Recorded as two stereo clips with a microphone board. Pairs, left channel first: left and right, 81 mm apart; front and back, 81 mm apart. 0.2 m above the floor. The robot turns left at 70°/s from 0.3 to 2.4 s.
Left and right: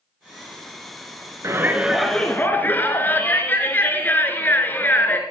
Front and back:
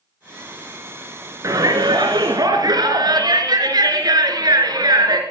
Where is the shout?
135° right, 2.5 m; by 5.2 s 155° left, 2.5 m.